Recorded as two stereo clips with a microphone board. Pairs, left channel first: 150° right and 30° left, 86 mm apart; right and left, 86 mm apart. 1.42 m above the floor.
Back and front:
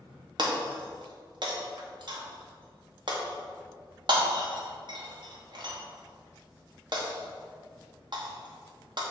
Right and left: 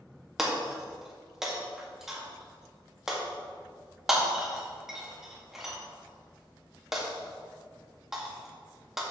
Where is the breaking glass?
5° left, 1.6 m.